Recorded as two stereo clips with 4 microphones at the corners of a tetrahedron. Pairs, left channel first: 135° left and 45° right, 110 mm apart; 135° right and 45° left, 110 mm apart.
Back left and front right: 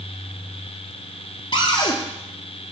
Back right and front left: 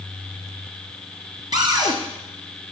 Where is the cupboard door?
95° left, 1.8 m.